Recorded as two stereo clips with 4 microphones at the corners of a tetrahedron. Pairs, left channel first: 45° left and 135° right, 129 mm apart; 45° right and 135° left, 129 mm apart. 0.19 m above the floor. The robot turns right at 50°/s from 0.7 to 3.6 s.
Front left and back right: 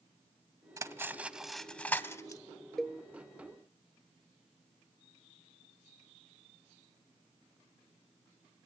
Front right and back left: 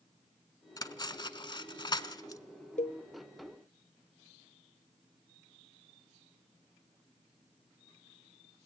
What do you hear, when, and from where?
0.8 s cutlery clinking: 85° right, 0.7 m; by 2.4 s straight ahead, 0.7 m
2.8 s a cowbell: 40° right, 0.7 m; by 3.0 s 30° right, 0.7 m